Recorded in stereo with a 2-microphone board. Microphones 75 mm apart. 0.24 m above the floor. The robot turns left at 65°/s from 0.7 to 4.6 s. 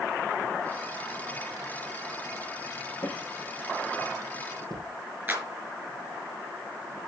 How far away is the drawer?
About 3.5 m.